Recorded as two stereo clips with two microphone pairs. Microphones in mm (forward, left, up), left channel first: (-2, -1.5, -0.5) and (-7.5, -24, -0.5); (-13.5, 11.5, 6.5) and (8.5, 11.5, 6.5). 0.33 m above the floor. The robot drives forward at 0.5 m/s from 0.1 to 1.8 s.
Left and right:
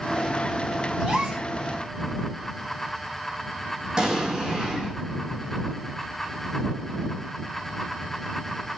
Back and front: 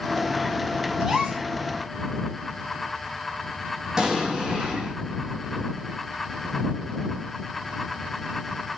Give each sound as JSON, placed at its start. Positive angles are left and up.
{"t": 1.0, "sound": "a gasp", "azimuth_deg": -60, "distance_m": 2.5}
{"t": 4.0, "sound": "an explosion", "azimuth_deg": -65, "distance_m": 2.0}